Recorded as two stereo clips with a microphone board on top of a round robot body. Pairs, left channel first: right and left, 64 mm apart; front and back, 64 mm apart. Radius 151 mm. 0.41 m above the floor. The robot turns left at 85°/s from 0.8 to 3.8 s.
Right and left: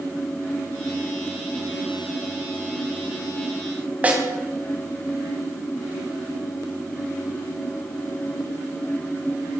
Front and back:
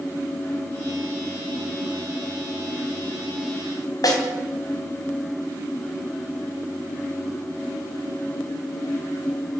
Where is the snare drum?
25° left, 3.5 m.